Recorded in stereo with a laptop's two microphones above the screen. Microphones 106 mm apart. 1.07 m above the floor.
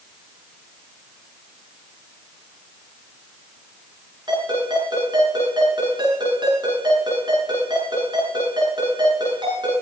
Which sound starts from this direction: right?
A ringtone, at 4.3 s.